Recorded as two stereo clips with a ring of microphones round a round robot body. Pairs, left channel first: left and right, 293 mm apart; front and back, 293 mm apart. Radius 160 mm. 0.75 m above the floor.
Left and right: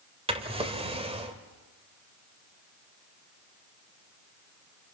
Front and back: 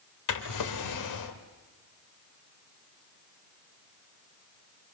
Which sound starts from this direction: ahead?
A drawer, at 0.3 s.